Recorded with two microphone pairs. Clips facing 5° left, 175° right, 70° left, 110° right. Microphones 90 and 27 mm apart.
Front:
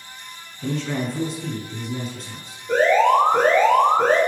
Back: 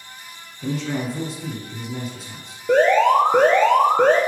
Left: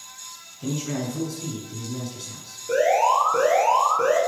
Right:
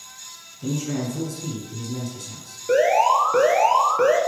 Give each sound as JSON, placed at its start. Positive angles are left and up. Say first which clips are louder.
{"t": 0.6, "sound": "a man speaking", "louder": "even, right 2 dB", "azimuth_deg": 105, "distance_m": 1.2}
{"t": 2.7, "sound": "an alarm", "louder": "back 1 dB, right 2 dB", "azimuth_deg": -170, "distance_m": 1.9}